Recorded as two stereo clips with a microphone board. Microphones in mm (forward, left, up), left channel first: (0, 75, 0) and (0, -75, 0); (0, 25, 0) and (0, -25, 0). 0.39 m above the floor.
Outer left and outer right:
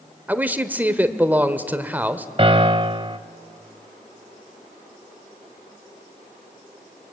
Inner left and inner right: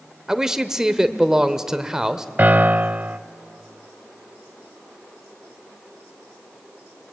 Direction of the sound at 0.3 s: 10° right (ahead or behind).